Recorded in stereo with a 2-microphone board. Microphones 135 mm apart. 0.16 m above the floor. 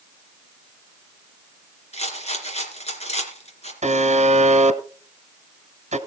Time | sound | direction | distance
1.9 | a rattle | 50° left (ahead or behind) | 3 m
3.8 | a buzzer | 55° right (ahead or behind) | 1.0 m